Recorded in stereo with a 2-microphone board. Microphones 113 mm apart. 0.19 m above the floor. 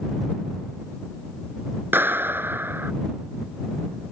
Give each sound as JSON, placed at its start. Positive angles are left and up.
{"t": 1.9, "sound": "a clap", "side_deg": -20}